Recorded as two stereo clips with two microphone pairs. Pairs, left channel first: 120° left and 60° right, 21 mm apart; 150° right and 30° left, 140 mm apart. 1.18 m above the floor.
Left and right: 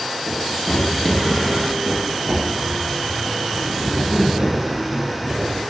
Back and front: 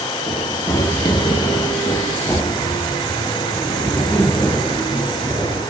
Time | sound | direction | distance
0.3 | running footsteps | 145° left | 2.0 m